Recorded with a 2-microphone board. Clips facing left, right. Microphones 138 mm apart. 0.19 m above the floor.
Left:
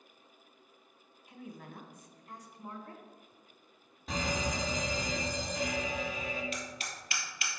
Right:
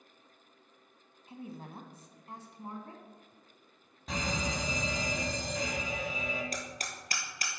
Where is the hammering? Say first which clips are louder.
Right 1 dB; 40° right (ahead or behind), 1.5 m.